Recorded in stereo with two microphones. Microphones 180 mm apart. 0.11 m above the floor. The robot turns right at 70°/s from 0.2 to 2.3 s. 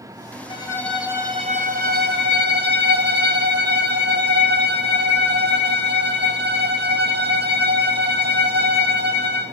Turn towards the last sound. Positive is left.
turn(degrees=-85)